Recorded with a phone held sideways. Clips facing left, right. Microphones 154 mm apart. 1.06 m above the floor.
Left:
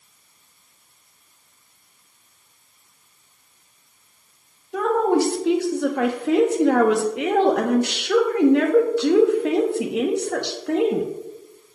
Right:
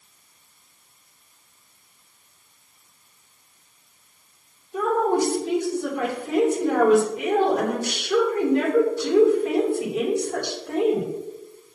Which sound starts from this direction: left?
A woman speaking, at 4.7 s.